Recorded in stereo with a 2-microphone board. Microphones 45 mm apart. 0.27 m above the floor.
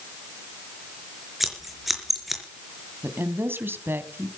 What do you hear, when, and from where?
1.4 s scissors: 5° right (ahead or behind), 4 m
3.0 s a woman speaking: 55° right (ahead or behind), 2.5 m